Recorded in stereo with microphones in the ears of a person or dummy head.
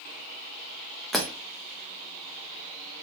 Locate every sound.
1.1 s breaking glass: centre (ahead or behind), 0.7 m